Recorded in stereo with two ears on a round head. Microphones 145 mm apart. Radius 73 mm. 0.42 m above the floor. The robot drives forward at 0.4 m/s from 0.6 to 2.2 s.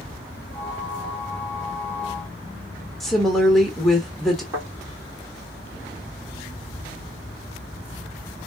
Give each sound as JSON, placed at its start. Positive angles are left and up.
{"t": 3.0, "sound": "a woman speaking", "side_deg": 0, "distance_m": 1.1}
{"t": 4.5, "sound": "a thud", "side_deg": -20, "distance_m": 3.5}